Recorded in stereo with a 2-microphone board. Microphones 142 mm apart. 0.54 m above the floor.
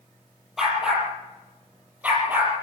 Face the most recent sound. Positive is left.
turn(degrees=-15)  # may be behind; listen again after turning